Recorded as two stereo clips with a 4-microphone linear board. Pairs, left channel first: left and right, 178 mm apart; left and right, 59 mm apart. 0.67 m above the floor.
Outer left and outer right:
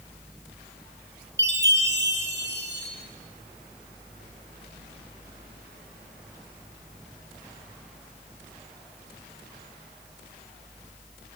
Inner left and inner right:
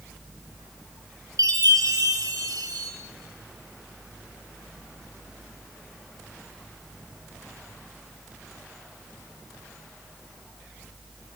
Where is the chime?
85° right, 3.5 m.